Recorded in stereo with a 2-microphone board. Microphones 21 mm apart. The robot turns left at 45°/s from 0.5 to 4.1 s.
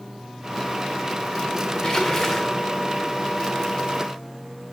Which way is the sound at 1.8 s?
45° left.